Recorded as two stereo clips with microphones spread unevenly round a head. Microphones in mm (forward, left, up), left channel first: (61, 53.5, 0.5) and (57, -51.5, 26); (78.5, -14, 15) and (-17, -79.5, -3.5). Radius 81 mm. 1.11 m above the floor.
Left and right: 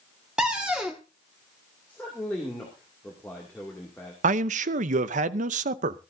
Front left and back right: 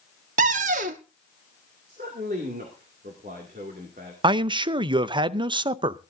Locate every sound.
0.4 s a cupboard door: 165° right, 0.9 m
1.9 s a man speaking: 170° left, 2.5 m
4.2 s a man speaking: 95° right, 0.7 m